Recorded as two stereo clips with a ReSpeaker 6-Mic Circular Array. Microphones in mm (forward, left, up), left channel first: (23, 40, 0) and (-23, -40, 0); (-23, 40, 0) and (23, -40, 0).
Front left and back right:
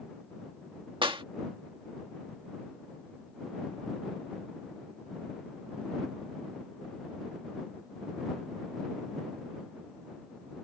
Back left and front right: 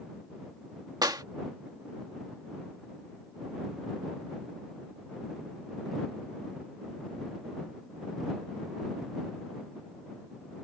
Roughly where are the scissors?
No scissors in this recording.